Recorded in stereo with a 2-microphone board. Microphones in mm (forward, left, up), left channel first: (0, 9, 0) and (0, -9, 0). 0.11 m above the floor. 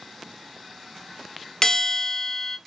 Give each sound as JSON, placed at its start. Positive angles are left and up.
{"t": 1.6, "sound": "a bell", "side_deg": 25, "distance_m": 0.6}